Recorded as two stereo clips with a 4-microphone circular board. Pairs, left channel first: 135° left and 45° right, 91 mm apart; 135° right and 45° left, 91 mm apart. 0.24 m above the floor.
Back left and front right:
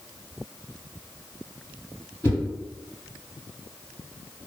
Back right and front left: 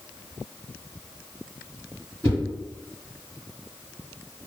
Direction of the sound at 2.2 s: 170° left.